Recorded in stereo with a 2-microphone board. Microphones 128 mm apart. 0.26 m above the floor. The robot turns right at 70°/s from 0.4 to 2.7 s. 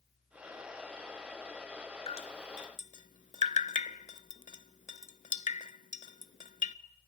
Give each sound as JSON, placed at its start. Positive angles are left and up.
{"t": 2.1, "sound": "dripping", "side_deg": 50, "distance_m": 0.5}